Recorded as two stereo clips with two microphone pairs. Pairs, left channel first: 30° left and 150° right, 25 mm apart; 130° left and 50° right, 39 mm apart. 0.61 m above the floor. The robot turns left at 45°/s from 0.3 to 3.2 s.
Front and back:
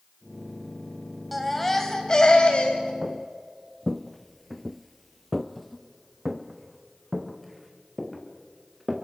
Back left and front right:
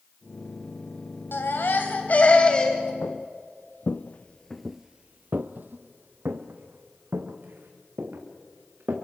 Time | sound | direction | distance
1.3 | a baby crying | 125° left | 3 m
3.0 | footsteps | 130° left | 1.6 m